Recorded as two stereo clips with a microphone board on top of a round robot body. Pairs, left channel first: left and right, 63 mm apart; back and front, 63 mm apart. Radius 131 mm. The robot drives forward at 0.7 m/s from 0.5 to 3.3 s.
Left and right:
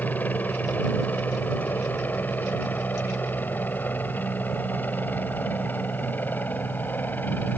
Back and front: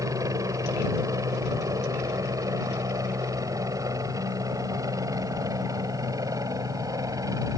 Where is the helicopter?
25° left.